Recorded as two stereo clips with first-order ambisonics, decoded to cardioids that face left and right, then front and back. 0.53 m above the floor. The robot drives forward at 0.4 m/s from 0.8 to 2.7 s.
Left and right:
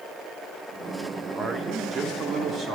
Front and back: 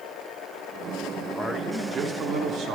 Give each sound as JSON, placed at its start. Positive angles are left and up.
{"t": 1.4, "sound": "a man speaking", "azimuth_deg": -80, "distance_m": 0.7}